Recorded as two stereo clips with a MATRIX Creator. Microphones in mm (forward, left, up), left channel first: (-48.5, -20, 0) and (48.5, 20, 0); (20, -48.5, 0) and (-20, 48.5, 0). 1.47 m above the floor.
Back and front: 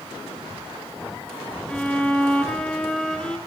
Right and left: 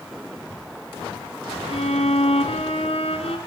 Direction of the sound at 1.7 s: 75° right.